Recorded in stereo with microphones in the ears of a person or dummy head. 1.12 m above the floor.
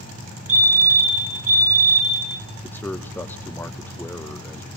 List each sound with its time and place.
0.5 s a fire alarm: 75° right (ahead or behind), 6.5 m
2.6 s a man speaking: 10° left (ahead or behind), 0.7 m